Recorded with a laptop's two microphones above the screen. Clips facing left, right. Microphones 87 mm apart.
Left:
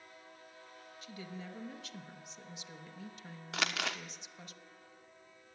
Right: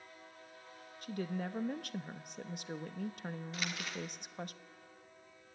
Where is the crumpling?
80° left, 1.2 m.